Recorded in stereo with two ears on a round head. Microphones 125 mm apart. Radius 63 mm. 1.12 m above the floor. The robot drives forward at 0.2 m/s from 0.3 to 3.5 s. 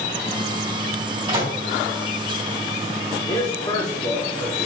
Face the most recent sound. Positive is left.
turn(degrees=30)  # may be behind; listen again after turning